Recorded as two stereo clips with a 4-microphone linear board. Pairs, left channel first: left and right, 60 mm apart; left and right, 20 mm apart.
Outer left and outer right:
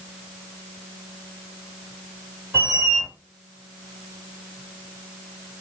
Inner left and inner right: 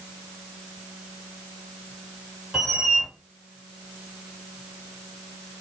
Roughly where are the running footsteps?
I don't hear running footsteps.